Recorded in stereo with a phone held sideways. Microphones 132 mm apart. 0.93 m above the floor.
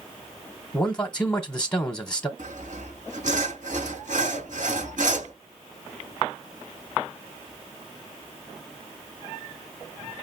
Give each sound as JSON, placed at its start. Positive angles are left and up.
{"t": 0.7, "sound": "a man speaking", "side_deg": 10, "distance_m": 0.9}
{"t": 2.4, "sound": "sawing", "side_deg": -70, "distance_m": 2.5}